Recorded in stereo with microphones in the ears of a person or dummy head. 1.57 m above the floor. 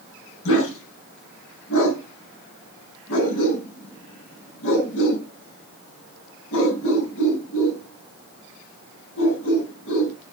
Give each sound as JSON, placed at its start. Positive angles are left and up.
{"t": 0.5, "sound": "a dog barking", "side_deg": 75, "distance_m": 5.5}